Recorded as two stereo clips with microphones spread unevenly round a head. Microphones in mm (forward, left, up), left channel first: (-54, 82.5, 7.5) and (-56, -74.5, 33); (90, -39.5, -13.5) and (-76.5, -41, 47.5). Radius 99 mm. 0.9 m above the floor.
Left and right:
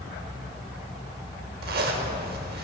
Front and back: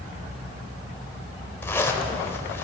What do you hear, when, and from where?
1.6 s a zipper: 85° right, 1.2 m